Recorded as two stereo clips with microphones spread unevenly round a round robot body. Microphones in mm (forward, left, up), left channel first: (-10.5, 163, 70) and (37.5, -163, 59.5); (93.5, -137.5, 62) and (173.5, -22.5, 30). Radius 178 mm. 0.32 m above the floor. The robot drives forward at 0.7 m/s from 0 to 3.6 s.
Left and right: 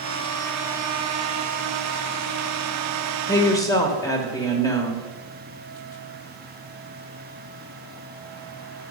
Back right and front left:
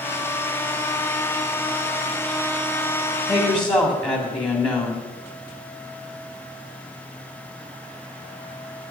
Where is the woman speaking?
175° left, 1.3 m.